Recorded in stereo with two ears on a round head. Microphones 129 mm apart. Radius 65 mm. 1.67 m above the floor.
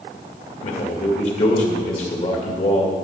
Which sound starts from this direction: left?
A man speaking, at 0.6 s.